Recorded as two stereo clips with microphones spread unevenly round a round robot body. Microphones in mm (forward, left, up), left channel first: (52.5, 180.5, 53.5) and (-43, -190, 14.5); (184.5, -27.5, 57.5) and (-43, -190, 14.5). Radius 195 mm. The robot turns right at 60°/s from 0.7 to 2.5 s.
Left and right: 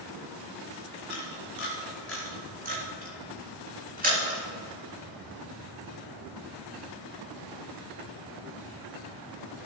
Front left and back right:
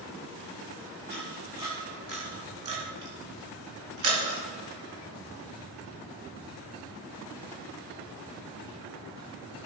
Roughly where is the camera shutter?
Left.